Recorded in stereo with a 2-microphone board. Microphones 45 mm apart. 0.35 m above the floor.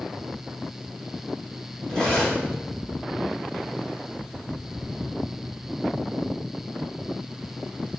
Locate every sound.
1.9 s cutlery clinking: 20° left (ahead or behind), 1.1 m